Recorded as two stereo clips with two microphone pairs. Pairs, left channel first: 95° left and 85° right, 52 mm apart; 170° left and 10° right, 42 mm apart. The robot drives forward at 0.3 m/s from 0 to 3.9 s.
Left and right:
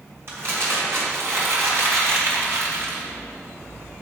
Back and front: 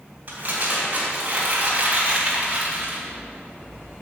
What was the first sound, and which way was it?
Crumpling, 60° right.